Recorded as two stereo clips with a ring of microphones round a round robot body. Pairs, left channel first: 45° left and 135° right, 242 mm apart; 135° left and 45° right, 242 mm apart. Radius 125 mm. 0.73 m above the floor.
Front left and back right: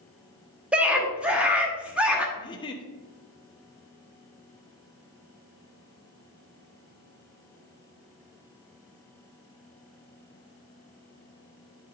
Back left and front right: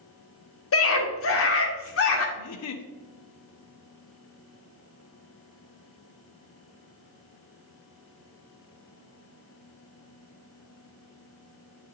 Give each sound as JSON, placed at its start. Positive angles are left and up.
{"t": 0.7, "sound": "a scream", "azimuth_deg": 140, "distance_m": 1.7}
{"t": 2.4, "sound": "a giggle", "azimuth_deg": 115, "distance_m": 0.8}